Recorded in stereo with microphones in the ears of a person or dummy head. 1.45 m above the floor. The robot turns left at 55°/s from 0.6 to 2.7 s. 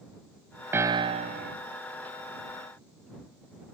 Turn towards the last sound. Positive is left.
turn(degrees=-120)